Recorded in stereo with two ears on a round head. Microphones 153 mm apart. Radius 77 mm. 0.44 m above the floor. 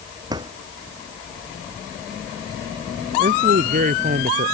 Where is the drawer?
25° right (ahead or behind).